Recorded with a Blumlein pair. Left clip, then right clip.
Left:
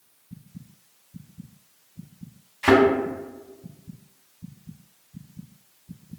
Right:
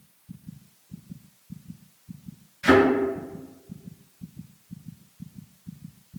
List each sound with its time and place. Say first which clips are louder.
2.6 s a thud: left 1 dB; 55° left, 1.8 m